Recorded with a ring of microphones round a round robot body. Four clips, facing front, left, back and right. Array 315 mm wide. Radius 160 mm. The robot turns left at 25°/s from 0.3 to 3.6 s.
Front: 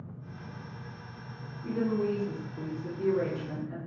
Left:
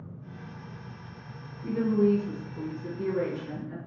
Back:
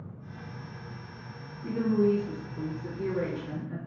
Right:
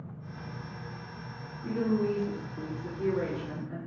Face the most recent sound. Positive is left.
turn(degrees=85)